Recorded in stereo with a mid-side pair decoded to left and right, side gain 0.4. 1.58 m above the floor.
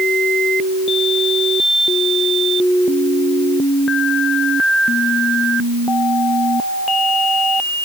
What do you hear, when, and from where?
Only background noise.